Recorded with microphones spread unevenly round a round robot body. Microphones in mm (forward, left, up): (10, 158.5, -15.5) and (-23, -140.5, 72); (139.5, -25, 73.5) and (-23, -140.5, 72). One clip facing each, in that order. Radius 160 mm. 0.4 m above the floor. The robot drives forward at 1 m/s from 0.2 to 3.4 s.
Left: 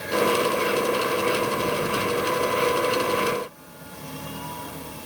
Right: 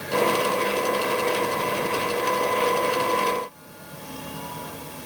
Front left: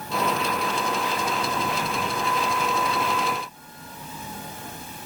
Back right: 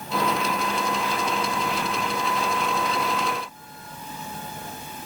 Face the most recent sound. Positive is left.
No sound to turn to.